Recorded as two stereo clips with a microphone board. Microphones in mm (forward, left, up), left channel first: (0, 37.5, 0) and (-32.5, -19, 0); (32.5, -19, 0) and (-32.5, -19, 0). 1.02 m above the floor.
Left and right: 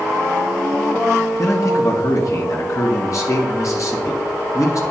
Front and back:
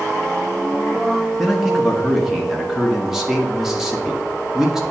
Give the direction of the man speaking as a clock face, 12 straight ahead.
9 o'clock.